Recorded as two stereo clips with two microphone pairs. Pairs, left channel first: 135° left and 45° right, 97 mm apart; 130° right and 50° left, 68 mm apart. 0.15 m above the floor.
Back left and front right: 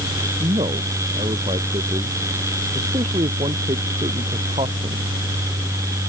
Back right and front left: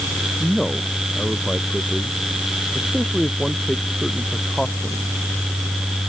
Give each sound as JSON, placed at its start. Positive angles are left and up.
{"t": 0.4, "sound": "a man speaking", "azimuth_deg": -50}